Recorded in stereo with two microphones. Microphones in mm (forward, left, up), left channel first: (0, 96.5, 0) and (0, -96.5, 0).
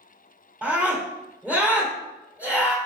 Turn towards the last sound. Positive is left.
turn(degrees=-10)  # may be behind; listen again after turning